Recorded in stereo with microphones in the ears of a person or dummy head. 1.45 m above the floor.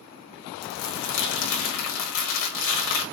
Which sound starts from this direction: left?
Crumpling, at 0.6 s.